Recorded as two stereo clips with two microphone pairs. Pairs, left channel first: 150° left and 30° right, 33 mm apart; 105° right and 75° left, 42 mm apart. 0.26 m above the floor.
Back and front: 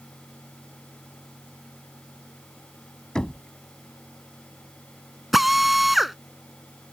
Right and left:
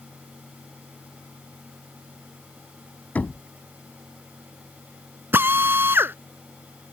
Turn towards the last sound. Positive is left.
turn(degrees=55)